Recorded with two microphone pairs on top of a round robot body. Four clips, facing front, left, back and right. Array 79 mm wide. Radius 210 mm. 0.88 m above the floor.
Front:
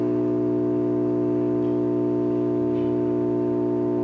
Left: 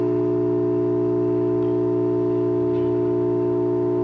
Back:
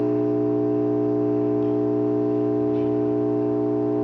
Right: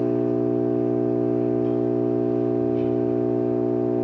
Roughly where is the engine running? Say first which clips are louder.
Left 2 dB, back 1 dB; left.